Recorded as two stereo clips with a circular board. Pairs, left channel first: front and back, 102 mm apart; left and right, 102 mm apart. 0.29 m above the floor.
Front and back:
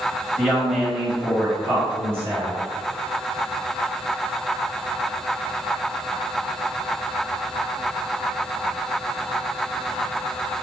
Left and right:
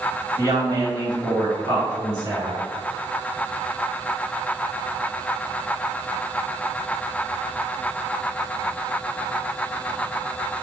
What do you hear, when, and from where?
0.4 s a woman speaking: 85° right, 1.7 m; by 2.6 s 125° right, 3 m